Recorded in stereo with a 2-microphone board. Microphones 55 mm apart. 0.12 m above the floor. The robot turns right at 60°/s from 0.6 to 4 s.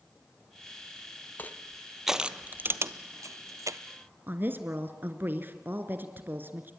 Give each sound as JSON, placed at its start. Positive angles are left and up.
{"t": 1.4, "sound": "crushing", "side_deg": 35, "distance_m": 0.7}
{"t": 4.3, "sound": "a woman speaking", "side_deg": -40, "distance_m": 1.5}